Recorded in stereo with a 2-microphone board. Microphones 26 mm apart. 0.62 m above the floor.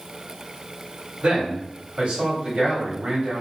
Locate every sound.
1.2 s a man speaking: 60° right (ahead or behind), 1.7 m